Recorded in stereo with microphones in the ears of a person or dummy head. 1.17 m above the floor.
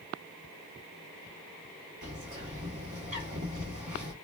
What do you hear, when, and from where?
2.0 s a bird: 35° right (ahead or behind), 1.4 m